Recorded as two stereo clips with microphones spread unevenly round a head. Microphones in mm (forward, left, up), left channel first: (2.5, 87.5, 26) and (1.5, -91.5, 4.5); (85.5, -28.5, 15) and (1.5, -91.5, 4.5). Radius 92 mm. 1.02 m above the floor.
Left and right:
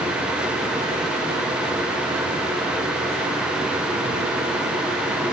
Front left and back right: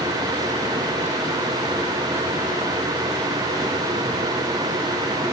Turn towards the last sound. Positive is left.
No sound to turn to.